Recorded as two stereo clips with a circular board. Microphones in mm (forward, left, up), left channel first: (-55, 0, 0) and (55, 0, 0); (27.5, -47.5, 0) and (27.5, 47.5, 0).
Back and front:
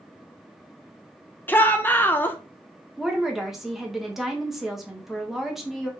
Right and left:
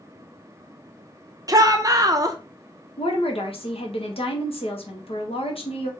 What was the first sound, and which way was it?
A shout, 115° left.